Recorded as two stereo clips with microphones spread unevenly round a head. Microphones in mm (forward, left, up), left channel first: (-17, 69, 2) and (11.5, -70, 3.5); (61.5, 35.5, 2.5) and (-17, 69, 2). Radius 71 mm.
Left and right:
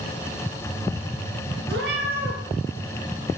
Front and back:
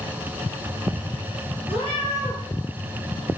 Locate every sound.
1.7 s a cat meowing: 80° right, 4.5 m